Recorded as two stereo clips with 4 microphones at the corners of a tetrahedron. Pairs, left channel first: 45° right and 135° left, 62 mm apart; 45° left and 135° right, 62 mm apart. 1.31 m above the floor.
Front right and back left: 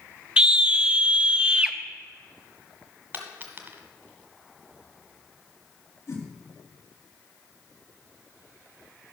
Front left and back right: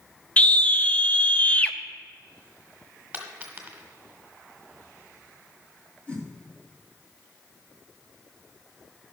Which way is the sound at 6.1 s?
20° right.